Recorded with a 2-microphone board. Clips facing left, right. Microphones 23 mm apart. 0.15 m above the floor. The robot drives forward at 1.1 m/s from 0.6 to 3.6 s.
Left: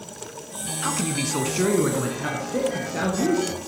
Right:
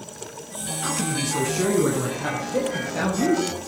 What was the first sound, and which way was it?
A man speaking, 20° left (ahead or behind).